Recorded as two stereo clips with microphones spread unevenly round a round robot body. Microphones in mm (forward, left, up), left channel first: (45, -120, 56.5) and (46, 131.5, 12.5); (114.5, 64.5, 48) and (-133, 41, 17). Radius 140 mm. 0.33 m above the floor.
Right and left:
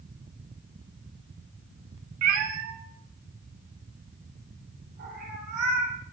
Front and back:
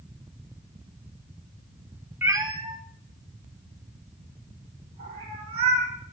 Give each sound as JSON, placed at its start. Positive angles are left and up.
{"t": 2.2, "sound": "a cat meowing", "azimuth_deg": 105, "distance_m": 1.0}